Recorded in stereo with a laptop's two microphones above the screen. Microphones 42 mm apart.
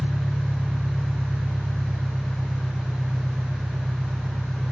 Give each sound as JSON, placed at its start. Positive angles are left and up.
{"t": 0.0, "sound": "an engine running", "side_deg": -50, "distance_m": 1.1}